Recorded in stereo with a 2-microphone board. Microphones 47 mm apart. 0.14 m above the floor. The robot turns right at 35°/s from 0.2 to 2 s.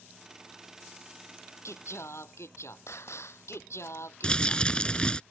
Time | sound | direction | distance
1.6 | singing | 75° left (ahead or behind) | ?
4.2 | crumpling | 20° left (ahead or behind) | ?